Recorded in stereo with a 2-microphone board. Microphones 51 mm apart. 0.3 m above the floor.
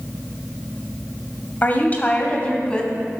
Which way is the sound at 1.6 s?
35° left (ahead or behind).